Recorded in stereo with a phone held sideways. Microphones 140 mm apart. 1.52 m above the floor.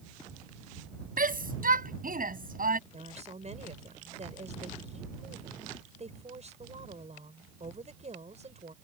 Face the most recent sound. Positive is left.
turn(degrees=-55)  # may be behind; listen again after turning